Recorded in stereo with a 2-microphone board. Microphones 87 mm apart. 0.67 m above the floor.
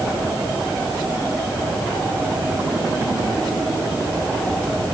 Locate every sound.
Only background noise.